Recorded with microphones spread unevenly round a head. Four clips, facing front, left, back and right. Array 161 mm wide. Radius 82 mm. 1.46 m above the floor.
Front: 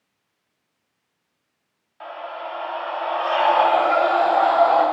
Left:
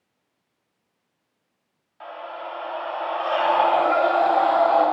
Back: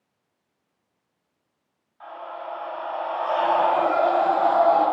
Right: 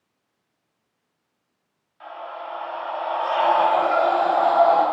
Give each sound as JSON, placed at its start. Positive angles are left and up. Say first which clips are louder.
{"t": 2.0, "sound": "a scream", "louder": "even, front 3 dB", "azimuth_deg": 20, "distance_m": 4.0}